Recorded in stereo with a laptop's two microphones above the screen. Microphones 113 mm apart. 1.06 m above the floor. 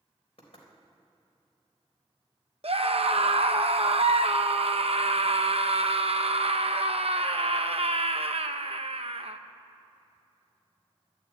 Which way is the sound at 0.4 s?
65° left (ahead or behind).